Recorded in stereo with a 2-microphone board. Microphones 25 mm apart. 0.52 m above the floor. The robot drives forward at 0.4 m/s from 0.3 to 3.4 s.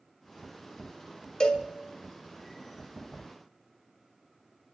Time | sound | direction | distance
1.4 | a cowbell | 35° left (ahead or behind) | 1.6 m